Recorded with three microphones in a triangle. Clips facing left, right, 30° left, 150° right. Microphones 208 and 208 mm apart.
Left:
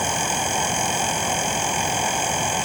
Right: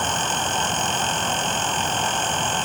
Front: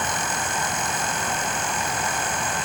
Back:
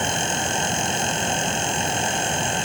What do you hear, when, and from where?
Only background noise.